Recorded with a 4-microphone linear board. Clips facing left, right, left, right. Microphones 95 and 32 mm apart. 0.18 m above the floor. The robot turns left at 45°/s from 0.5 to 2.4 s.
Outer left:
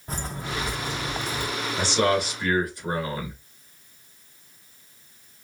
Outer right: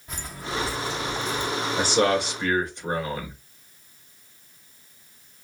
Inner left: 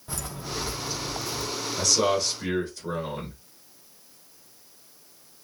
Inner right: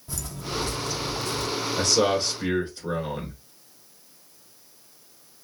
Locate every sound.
0.1 s footsteps: 35° left (ahead or behind), 0.9 m; by 1.5 s 10° left (ahead or behind), 0.8 m
1.8 s a man speaking: 45° right (ahead or behind), 3 m; by 3.3 s 25° right (ahead or behind), 3 m